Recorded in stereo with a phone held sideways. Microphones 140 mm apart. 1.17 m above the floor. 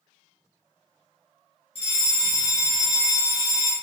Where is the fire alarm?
40° left (ahead or behind), 2.5 m.